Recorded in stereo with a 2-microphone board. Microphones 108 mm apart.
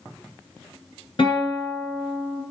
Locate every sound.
1.2 s a guitar: 50° left (ahead or behind), 2.5 m